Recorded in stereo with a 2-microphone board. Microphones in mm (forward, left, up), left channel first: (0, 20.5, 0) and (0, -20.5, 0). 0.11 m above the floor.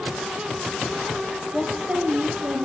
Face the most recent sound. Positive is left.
turn(degrees=-35)  # may be behind; listen again after turning